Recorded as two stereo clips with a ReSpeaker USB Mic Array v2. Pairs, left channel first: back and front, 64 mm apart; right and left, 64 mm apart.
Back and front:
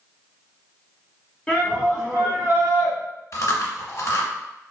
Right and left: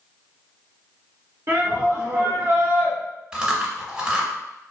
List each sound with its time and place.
1.5 s a shout: 115° left, 0.9 m; by 3.0 s 40° left, 1.3 m
3.3 s chewing: 160° left, 0.6 m